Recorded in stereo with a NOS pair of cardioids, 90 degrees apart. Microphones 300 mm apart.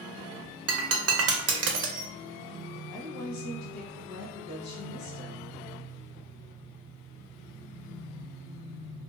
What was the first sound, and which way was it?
Breaking glass, 55° right.